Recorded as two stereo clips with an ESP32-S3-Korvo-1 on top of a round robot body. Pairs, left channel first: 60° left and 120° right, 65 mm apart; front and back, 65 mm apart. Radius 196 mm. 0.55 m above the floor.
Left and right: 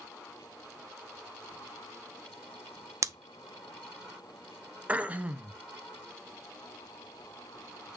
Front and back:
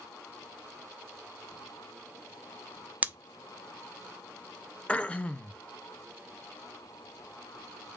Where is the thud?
No thud in this recording.